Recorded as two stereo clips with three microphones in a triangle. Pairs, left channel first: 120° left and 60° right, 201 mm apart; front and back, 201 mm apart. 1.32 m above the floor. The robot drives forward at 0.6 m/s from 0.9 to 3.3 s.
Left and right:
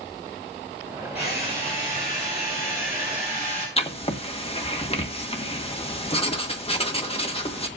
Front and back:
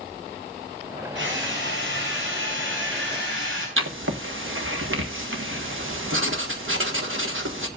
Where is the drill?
Straight behind, 6.5 m.